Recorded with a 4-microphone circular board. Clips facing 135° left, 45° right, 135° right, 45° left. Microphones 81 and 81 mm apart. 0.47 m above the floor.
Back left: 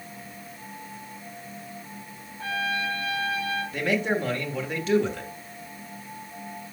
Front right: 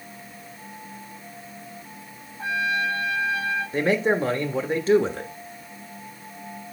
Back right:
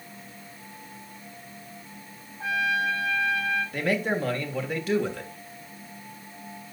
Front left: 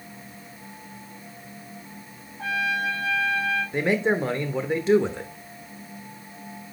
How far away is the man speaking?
About 1.2 m.